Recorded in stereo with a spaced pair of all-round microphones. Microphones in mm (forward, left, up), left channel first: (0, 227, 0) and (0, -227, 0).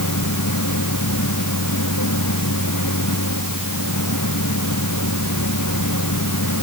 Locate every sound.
0.0 s a machine running: 40° left (ahead or behind)